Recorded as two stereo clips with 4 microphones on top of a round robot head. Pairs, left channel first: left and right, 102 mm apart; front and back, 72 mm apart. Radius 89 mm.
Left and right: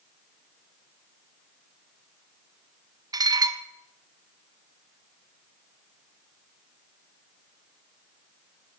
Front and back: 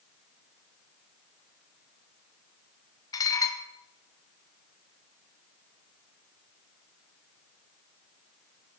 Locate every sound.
3.1 s dishes clattering: 40° right, 1.0 m